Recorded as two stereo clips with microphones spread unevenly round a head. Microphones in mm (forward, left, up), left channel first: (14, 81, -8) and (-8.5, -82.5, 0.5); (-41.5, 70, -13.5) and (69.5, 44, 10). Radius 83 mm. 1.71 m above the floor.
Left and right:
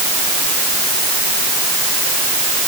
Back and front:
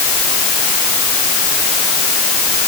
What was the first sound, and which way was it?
Only background noise.